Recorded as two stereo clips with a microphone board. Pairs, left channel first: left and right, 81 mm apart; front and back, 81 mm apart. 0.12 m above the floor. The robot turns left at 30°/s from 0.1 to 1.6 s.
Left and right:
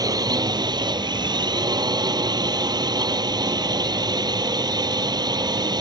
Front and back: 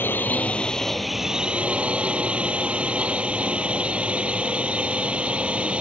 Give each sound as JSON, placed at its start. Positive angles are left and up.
{"t": 0.0, "sound": "a drone", "azimuth_deg": -60}